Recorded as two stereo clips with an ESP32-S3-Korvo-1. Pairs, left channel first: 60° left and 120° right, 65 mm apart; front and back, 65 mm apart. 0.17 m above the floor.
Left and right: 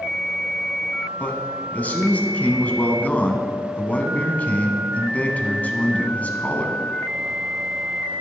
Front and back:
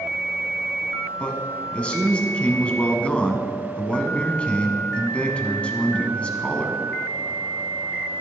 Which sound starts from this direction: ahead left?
A man speaking, at 1.2 s.